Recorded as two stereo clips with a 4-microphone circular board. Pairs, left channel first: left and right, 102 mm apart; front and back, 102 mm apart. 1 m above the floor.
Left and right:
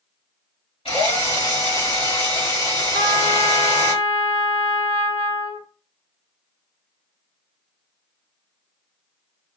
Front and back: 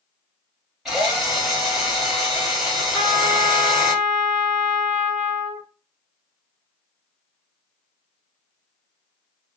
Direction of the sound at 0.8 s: 95° left.